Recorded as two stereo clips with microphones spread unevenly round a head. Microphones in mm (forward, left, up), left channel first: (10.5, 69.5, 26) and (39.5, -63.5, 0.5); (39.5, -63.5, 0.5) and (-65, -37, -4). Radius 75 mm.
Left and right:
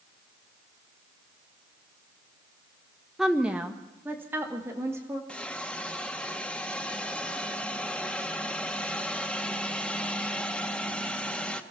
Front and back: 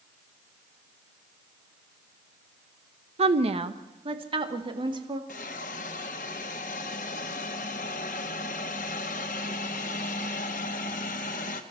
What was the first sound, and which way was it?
A woman speaking, 165° right.